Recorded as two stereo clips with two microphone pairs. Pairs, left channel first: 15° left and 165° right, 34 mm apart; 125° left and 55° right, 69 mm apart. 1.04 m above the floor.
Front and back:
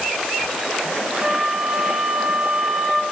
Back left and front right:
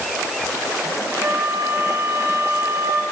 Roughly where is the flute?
Right.